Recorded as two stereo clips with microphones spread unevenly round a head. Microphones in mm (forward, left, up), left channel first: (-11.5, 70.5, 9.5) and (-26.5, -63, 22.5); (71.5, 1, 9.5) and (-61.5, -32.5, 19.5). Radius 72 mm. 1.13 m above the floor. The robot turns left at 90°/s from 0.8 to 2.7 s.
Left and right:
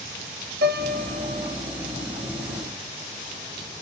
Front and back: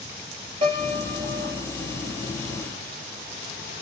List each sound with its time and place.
0.6 s a piano: 110° right, 1.1 m; by 1.6 s 175° left, 1.1 m